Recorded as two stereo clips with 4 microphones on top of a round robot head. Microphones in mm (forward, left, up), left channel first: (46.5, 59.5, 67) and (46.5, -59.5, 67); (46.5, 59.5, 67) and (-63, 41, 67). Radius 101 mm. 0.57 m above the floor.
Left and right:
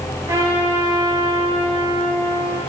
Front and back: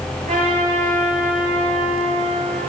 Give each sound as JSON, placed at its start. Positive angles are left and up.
{"t": 0.3, "sound": "a trumpet", "azimuth_deg": -160, "distance_m": 6.0}